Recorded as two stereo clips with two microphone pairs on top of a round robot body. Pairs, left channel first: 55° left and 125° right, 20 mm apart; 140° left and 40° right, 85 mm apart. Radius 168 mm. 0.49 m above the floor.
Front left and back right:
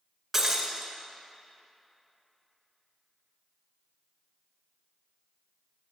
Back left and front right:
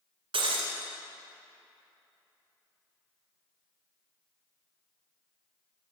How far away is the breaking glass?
About 1.9 m.